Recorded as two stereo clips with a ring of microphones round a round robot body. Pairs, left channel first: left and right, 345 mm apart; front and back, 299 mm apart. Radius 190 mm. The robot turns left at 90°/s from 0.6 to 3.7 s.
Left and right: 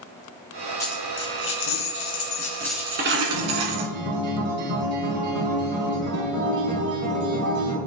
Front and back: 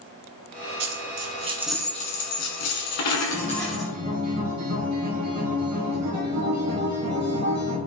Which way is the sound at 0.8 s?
170° left.